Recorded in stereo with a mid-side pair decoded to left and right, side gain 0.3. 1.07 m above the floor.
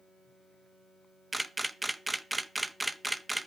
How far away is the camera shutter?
About 0.6 m.